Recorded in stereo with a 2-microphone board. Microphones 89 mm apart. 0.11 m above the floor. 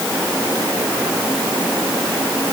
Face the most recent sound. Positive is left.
No sound to turn to.